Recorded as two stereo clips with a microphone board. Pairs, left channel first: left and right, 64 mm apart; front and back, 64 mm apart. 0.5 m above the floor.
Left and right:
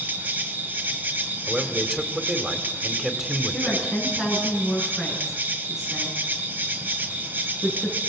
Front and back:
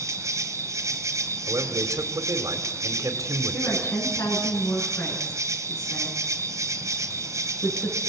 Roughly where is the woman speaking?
Ahead.